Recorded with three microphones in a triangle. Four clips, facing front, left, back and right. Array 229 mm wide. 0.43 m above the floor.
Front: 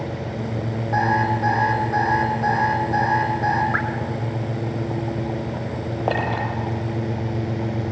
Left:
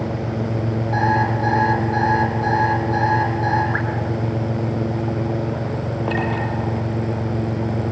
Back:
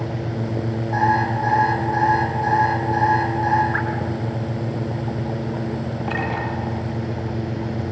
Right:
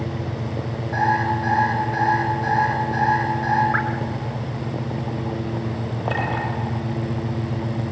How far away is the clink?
About 7 m.